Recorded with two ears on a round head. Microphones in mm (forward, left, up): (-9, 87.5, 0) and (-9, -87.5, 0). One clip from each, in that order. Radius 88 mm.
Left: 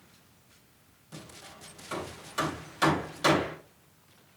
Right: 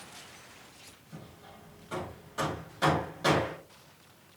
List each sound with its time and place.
1.1 s hammering: 65° left (ahead or behind), 3 m